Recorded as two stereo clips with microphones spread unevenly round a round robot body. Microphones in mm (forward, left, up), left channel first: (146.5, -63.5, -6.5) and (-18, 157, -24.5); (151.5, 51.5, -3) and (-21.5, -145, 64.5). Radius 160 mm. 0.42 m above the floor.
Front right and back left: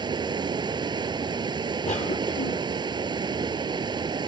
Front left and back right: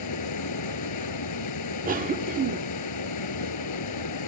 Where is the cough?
85° right.